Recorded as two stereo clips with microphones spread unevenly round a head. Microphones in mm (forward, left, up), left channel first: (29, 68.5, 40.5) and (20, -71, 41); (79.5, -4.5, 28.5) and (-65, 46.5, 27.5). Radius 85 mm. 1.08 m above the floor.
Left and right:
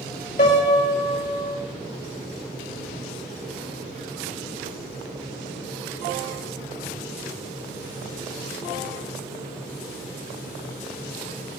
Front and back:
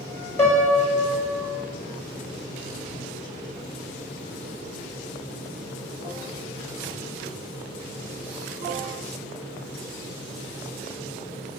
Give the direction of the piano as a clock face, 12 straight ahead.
10 o'clock.